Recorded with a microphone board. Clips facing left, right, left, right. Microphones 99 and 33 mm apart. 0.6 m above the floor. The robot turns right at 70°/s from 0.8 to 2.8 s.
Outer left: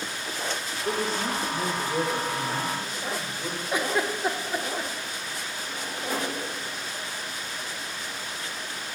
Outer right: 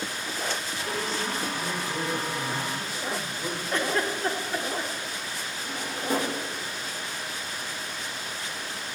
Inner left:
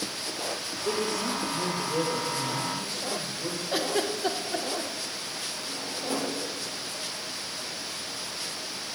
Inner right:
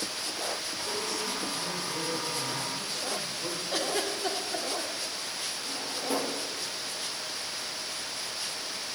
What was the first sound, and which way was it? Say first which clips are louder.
A woman speaking: outer left 4 dB, inner left 6 dB; 50° left.